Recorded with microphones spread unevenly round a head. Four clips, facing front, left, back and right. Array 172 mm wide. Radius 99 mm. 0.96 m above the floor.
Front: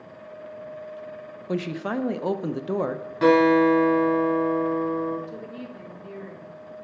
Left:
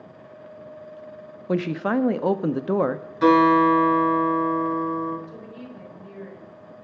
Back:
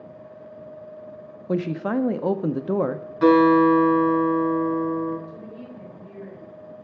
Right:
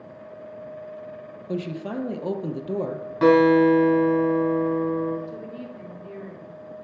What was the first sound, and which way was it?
A woman speaking, 120° left.